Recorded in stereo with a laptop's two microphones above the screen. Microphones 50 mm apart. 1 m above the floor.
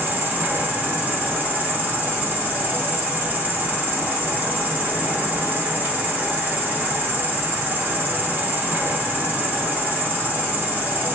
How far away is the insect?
About 1.0 m.